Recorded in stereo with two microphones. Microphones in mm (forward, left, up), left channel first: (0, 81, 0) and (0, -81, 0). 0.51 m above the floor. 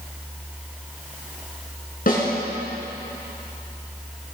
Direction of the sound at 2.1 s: 60° left (ahead or behind).